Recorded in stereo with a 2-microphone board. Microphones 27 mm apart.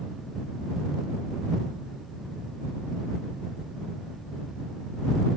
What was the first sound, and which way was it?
Only background noise.